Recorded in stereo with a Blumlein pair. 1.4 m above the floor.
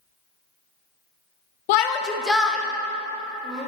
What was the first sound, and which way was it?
A shout, 50° left.